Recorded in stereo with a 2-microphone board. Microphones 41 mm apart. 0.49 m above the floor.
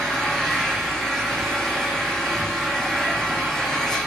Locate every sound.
0.0 s an engine running: 10° left (ahead or behind), 8 m